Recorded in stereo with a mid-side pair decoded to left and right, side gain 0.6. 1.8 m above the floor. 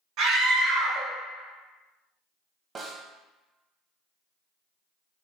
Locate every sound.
0.2 s a scream: 65° right, 1.4 m
2.8 s a snare drum: 35° right, 0.7 m